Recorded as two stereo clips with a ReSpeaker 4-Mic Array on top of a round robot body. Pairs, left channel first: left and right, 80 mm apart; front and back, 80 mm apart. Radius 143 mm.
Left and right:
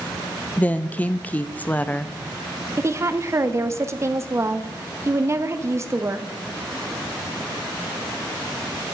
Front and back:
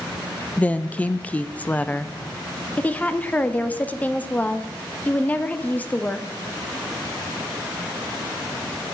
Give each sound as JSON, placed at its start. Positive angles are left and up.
{"t": 0.6, "sound": "a woman speaking", "azimuth_deg": 45, "distance_m": 0.9}
{"t": 2.8, "sound": "a woman speaking", "azimuth_deg": -60, "distance_m": 1.5}